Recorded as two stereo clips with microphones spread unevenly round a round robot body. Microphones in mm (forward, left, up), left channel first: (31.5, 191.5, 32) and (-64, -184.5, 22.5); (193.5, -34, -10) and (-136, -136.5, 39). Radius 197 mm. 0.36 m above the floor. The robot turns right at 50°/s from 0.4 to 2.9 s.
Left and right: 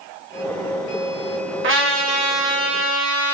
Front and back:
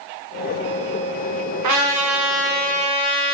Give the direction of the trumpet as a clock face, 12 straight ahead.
5 o'clock.